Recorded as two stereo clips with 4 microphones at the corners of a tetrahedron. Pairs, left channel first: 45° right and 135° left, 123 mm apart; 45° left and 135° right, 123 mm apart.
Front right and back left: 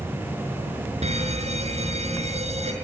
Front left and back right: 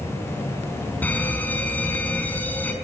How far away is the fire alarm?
About 5 m.